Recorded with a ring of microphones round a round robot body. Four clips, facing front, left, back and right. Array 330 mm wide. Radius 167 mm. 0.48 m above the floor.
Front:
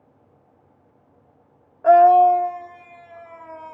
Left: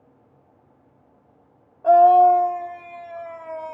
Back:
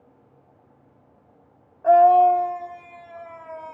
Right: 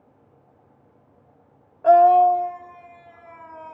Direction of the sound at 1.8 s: 35° right.